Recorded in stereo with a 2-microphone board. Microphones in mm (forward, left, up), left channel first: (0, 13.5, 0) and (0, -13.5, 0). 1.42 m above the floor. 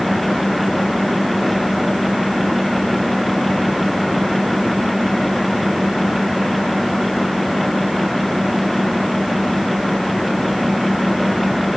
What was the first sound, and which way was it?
Only background noise.